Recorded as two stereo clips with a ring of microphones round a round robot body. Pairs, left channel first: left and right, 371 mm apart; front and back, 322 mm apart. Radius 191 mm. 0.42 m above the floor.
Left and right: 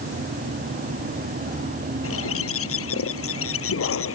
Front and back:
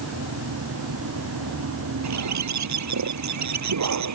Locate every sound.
2.0 s a bird: 145° left